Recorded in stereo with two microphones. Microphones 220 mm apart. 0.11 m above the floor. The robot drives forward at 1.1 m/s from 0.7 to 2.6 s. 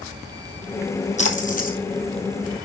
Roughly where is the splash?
Left.